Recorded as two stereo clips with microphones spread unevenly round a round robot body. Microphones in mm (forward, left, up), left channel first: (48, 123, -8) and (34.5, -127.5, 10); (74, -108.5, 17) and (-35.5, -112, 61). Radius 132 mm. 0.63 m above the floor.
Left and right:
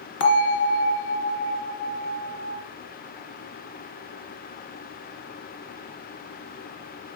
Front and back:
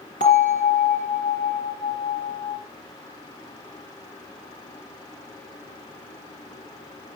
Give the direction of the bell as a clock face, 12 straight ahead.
8 o'clock.